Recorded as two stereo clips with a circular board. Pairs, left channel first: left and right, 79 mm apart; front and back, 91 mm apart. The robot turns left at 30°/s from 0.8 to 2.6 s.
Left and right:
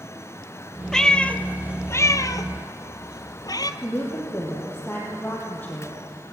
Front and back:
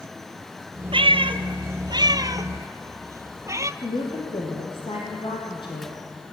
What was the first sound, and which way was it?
A cat meowing, 175° left.